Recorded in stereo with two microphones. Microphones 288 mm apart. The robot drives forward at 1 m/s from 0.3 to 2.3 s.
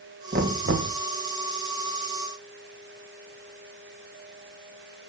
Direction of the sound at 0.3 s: 35° right (ahead or behind).